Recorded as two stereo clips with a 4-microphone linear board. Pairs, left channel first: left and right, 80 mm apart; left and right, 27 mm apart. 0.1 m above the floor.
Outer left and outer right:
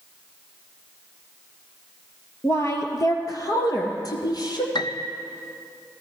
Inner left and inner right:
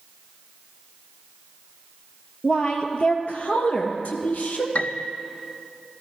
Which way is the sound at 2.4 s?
35° left (ahead or behind).